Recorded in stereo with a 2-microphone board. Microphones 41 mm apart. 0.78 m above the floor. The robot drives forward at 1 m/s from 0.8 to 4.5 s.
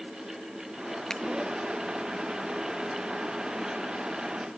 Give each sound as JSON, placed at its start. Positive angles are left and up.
{"t": 1.1, "sound": "a finger snap", "side_deg": 15, "distance_m": 0.8}